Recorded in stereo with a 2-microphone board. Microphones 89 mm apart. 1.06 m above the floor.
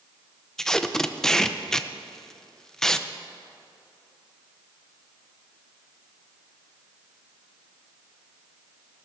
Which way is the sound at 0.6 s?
5° left (ahead or behind).